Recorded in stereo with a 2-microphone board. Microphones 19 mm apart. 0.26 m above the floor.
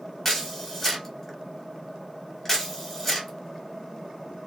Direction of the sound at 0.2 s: 20° left (ahead or behind).